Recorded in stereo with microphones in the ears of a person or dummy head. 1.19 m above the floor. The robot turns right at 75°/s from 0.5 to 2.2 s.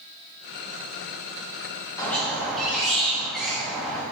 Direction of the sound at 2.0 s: 15° left (ahead or behind).